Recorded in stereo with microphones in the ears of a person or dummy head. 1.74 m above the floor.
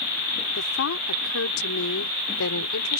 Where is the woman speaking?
60° left (ahead or behind); by 3.0 s 85° left.